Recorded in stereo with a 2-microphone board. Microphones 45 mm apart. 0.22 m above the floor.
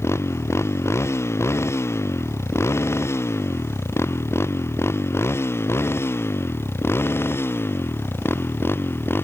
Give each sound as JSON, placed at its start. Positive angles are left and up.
{"t": 0.0, "sound": "a motorcycle", "side_deg": 90}